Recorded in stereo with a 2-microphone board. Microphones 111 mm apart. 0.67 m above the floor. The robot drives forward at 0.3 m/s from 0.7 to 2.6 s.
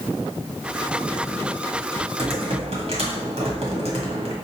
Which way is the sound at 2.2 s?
60° right (ahead or behind).